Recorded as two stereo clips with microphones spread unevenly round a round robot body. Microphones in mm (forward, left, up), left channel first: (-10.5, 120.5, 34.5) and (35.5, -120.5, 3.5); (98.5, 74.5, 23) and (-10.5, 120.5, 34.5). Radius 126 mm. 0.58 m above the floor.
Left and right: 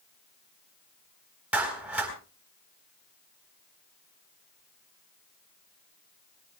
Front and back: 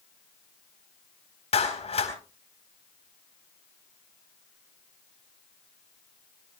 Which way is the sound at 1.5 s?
5° left.